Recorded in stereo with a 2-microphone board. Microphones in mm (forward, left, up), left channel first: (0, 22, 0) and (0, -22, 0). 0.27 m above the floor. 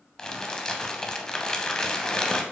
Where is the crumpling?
15° left (ahead or behind), 0.5 m.